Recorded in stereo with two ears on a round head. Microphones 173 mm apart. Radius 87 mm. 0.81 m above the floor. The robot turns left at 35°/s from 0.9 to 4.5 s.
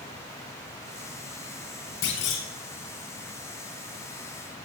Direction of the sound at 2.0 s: 70° left (ahead or behind).